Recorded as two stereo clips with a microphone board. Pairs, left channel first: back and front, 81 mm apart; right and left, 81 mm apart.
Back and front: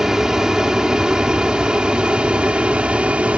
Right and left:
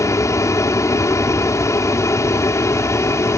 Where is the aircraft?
80° right; by 3.4 s 65° right.